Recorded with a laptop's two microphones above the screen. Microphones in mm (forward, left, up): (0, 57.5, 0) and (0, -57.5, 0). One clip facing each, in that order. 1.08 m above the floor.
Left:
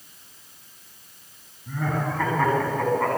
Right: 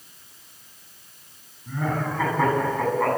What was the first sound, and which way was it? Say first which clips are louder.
Laughter: even; 5° right (ahead or behind).